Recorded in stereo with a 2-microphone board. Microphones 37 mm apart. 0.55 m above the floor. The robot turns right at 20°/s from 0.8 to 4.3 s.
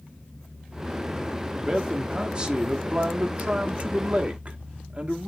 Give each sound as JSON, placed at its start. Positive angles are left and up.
{"t": 1.6, "sound": "a man speaking", "azimuth_deg": -145, "distance_m": 0.9}